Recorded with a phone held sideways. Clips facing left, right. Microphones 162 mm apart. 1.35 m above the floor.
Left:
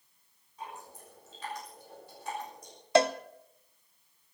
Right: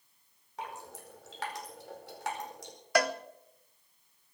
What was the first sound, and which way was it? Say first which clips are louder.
Dripping: right 2 dB; 90° right.